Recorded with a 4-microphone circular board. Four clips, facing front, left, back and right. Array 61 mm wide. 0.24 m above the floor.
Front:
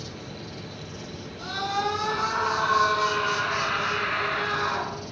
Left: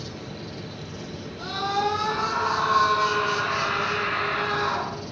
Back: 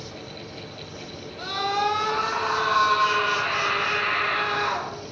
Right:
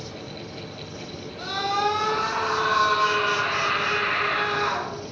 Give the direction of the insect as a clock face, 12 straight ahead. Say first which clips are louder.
Even, even; 10 o'clock.